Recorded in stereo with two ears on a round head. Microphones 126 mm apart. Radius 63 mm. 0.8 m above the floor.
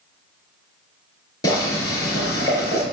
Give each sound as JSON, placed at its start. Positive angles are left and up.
{"t": 1.4, "sound": "boiling", "side_deg": 25, "distance_m": 5.5}